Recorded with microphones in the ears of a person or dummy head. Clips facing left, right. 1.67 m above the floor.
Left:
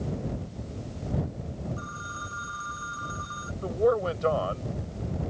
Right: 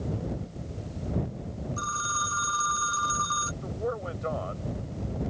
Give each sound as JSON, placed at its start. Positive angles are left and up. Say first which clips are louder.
{"t": 1.8, "sound": "a phone ringing", "louder": "right 4 dB", "side_deg": -80}
{"t": 3.6, "sound": "a man speaking", "louder": "left 9 dB", "side_deg": 65}